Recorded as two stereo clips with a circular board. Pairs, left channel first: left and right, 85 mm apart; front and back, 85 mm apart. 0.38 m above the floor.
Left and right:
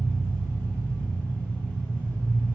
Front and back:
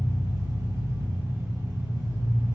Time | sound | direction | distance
0.0 | an engine running | 155° left | 1.2 m